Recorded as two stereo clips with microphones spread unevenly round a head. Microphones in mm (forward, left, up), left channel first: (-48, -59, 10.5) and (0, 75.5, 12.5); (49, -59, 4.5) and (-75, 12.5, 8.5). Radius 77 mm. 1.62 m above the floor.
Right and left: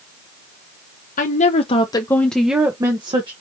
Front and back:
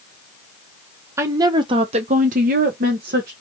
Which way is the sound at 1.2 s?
140° right.